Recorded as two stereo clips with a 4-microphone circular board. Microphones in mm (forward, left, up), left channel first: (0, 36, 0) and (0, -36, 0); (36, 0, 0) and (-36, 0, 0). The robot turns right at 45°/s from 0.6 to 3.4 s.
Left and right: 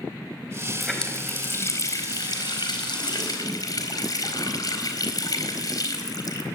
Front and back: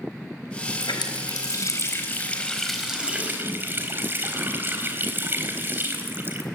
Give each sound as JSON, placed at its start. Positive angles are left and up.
{"t": 0.8, "sound": "a running tap", "azimuth_deg": 0, "distance_m": 4.0}